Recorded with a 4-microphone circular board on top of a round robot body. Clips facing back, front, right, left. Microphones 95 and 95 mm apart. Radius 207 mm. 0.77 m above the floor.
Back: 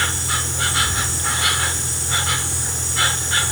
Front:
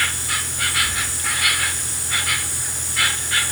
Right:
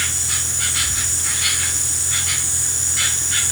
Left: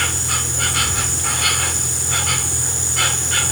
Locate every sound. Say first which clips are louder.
0.0 s an insect: back 2 dB, left 6 dB; 120° left